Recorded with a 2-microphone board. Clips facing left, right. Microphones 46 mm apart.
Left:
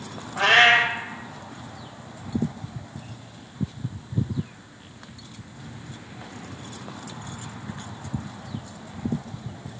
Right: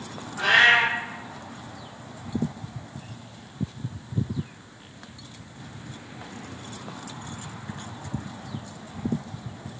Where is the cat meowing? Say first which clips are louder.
Left 1 dB; 80° left, 0.6 m.